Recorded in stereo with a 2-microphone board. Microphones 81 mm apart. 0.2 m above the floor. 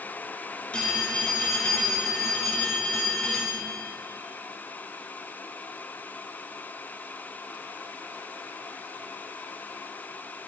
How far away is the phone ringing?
About 2.5 m.